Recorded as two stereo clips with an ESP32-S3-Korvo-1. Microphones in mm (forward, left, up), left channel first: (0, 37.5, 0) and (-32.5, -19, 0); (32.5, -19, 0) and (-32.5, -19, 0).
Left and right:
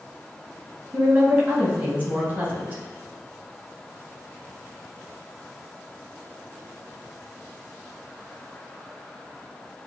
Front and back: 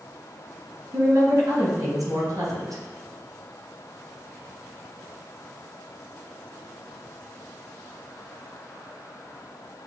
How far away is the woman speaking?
About 2 m.